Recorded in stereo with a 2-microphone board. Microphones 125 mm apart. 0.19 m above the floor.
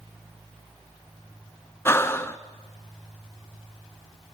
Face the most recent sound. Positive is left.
turn(degrees=20)  # may be behind; listen again after turning